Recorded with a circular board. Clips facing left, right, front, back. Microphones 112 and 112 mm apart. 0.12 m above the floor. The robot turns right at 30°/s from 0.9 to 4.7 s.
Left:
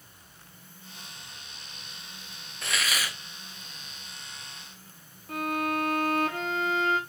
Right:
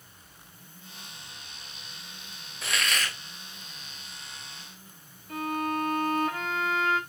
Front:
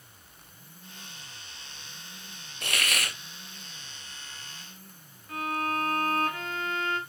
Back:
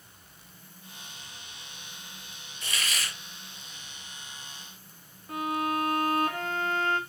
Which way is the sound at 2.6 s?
Straight ahead.